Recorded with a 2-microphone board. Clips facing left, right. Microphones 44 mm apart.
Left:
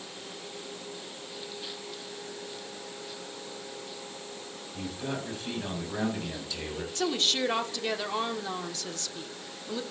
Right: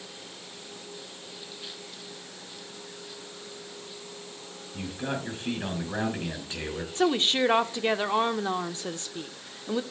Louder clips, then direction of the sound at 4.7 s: Right 2 dB; 35° right (ahead or behind).